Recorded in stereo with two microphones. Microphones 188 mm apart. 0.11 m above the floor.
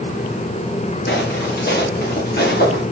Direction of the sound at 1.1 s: 60° left (ahead or behind).